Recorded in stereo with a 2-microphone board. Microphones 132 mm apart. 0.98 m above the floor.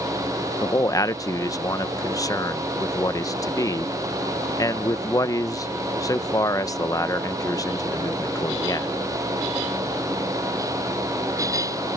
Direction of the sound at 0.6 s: 25° left (ahead or behind).